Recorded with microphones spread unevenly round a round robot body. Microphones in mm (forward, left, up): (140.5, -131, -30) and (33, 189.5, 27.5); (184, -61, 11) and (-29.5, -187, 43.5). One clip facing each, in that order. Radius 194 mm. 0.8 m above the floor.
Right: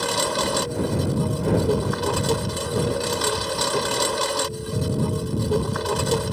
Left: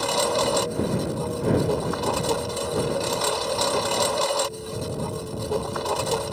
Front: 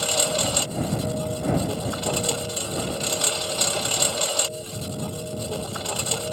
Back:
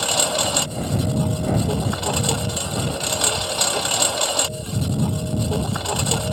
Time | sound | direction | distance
0.0 | a lawn mower | 145° right | ?